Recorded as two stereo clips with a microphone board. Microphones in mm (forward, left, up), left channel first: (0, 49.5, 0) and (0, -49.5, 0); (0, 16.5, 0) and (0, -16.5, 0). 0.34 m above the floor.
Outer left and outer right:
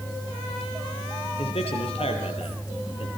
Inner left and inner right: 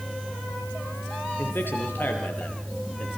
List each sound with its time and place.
1.4 s a man speaking: 75° left (ahead or behind), 6.5 m; by 3.1 s 65° left (ahead or behind), 7 m